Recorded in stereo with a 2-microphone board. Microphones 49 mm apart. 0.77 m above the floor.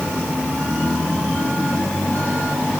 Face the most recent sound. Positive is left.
No sound to turn to.